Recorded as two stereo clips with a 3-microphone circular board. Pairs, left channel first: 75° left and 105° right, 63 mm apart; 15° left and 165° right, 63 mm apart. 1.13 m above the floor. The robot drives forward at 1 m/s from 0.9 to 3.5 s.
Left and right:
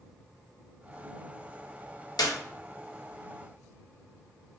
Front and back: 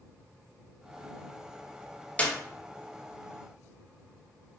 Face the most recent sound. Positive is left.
turn(degrees=145)